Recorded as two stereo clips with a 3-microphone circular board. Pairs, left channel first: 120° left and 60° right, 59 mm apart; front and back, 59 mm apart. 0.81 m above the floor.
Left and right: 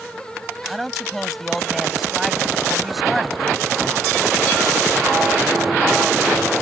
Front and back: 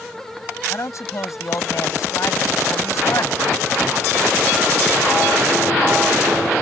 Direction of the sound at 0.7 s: 25° left.